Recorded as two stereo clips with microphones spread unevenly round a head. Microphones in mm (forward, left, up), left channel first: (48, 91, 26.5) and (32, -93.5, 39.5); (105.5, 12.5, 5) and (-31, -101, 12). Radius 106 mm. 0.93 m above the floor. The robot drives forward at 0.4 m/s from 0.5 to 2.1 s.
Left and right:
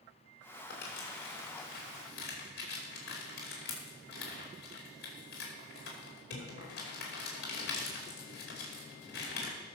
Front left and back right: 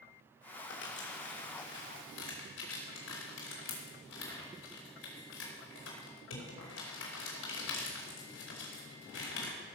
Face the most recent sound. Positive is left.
turn(degrees=55)